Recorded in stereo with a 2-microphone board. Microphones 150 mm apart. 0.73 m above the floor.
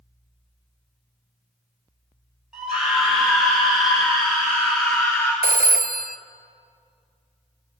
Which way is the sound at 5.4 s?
85° right.